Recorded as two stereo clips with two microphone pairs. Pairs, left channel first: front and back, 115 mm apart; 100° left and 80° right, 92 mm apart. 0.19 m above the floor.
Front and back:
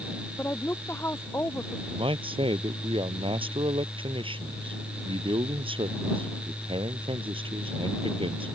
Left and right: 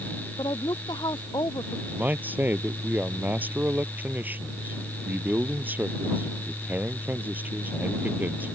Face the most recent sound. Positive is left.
turn(degrees=-145)